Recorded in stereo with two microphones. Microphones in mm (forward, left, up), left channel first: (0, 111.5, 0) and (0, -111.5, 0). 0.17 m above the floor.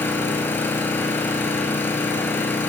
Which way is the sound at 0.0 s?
10° left (ahead or behind).